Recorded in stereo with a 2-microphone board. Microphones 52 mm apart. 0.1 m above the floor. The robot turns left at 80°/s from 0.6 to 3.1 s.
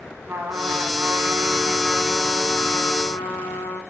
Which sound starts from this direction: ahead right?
A trumpet, at 0.3 s.